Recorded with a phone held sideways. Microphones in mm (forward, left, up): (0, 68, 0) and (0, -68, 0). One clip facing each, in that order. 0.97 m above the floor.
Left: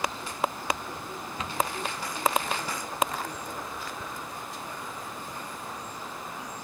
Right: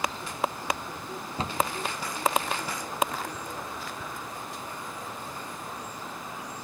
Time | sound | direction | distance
1.4 | a cupboard door | 30° right (ahead or behind) | 0.6 m